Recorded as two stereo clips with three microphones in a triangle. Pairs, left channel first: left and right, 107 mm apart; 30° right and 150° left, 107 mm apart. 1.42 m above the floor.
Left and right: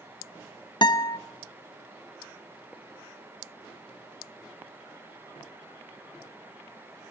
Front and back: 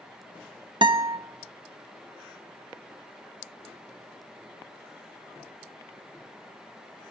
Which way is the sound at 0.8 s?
125° left.